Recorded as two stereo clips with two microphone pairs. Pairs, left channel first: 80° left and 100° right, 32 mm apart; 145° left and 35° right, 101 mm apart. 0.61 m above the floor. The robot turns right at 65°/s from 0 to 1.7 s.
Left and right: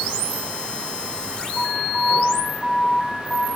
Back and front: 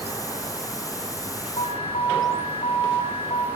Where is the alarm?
150° left, 5.5 m; by 3.5 s 160° left, 5.5 m.